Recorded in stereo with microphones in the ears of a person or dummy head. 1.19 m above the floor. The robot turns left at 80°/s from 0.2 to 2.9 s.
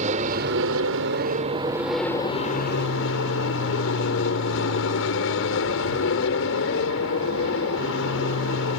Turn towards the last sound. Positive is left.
turn(degrees=100)